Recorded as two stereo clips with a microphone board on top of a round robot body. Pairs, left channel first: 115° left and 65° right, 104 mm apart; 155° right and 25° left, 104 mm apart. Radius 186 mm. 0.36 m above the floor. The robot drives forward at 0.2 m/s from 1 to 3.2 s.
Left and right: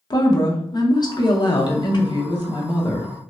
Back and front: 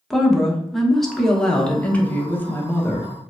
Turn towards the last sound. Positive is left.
turn(degrees=145)